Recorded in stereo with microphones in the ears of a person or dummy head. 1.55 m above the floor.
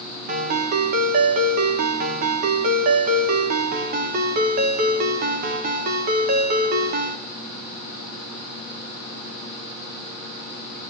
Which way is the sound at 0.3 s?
50° right (ahead or behind).